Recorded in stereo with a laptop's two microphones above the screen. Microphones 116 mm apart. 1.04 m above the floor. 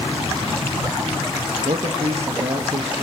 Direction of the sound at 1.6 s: 65° right (ahead or behind).